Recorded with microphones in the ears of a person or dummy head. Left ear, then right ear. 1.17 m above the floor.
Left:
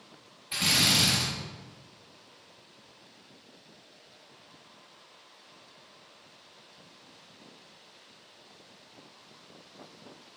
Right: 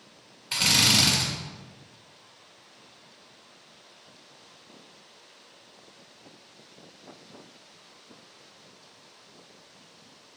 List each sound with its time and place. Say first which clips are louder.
0.5 s a drill: right 3 dB; 35° right (ahead or behind), 2.0 m